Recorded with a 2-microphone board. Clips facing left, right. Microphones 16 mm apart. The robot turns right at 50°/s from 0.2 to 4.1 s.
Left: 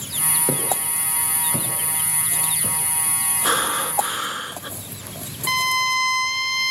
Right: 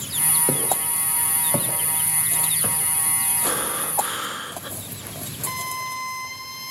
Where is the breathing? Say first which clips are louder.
Left 9 dB; 130° left, 1.3 m; by 4.7 s 165° left, 1.3 m.